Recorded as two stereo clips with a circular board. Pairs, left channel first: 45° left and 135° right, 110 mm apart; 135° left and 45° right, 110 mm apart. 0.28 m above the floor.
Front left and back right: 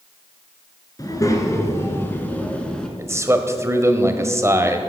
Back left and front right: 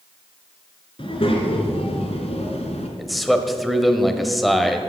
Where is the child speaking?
100° left, 2.5 m; by 2.9 s 125° left, 1.9 m.